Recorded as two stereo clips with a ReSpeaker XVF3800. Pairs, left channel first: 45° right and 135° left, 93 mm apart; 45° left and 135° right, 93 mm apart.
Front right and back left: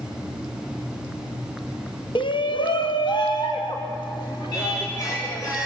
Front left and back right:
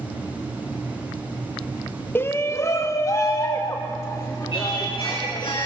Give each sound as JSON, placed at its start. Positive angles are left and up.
{"t": 2.1, "sound": "a shout", "azimuth_deg": -20, "distance_m": 0.6}
{"t": 4.5, "sound": "singing", "azimuth_deg": 10, "distance_m": 9.0}